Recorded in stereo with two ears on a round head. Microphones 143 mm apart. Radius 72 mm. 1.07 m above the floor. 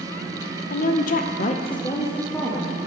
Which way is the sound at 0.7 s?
50° left (ahead or behind).